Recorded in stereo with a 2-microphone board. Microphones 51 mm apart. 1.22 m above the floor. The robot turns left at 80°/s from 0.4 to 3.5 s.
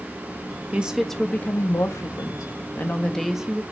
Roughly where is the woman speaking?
Behind right.